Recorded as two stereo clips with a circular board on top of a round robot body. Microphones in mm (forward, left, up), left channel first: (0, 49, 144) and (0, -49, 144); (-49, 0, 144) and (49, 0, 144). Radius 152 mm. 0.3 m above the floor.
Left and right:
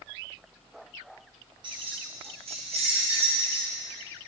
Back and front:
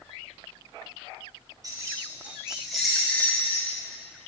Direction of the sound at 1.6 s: 50° right.